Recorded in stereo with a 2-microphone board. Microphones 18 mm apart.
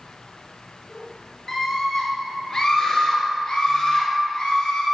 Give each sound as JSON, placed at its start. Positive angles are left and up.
{"t": 1.5, "sound": "a scream", "side_deg": 20, "distance_m": 1.9}